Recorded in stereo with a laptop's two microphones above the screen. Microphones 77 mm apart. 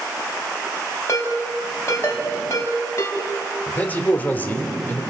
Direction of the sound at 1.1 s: 40° left (ahead or behind).